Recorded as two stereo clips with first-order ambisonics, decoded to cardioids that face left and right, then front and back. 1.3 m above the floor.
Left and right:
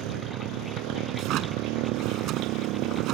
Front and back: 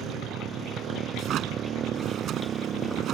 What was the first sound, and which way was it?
A motorcycle, 125° right.